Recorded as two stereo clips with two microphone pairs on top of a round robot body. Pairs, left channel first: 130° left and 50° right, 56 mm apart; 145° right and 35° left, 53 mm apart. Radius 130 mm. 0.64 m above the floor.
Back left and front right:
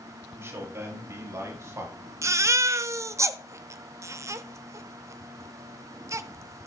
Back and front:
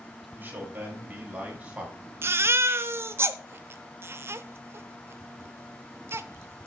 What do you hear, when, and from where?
0.4 s a man speaking: 20° right, 5 m; by 1.9 s 35° right, 5.5 m
2.2 s a baby crying: 15° right, 0.7 m